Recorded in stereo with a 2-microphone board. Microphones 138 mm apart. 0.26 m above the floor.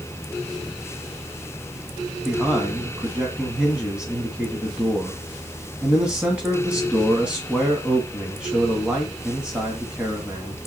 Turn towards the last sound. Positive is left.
turn(degrees=-5)  # may be behind; listen again after turning